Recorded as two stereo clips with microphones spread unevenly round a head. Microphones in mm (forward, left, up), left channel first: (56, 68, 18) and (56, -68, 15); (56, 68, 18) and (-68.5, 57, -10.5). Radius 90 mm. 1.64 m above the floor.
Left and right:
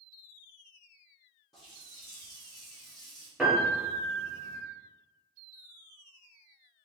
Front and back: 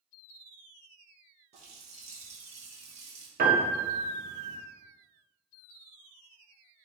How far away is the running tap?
About 1.0 m.